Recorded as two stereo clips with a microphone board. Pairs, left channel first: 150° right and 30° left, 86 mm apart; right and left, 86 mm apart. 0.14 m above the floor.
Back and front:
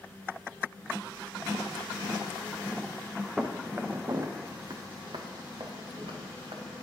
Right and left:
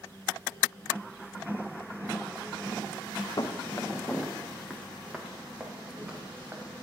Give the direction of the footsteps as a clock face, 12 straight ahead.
2 o'clock.